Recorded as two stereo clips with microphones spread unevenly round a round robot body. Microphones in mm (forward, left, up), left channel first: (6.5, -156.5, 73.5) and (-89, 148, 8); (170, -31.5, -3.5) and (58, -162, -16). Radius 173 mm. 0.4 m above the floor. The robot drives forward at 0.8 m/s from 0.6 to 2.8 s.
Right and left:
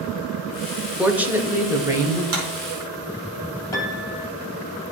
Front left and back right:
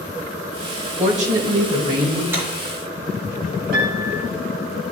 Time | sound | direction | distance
1.0 | a woman speaking | 175° right | 1.4 m
2.3 | a clap | 145° left | 4 m
3.7 | a piano | 155° right | 3.5 m